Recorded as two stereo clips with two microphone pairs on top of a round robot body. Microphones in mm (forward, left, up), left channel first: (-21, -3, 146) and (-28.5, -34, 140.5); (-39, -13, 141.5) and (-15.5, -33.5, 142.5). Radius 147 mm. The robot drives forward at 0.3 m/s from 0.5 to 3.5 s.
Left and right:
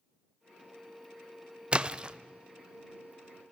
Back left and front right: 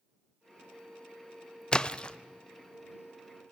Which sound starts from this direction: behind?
A splash, at 1.7 s.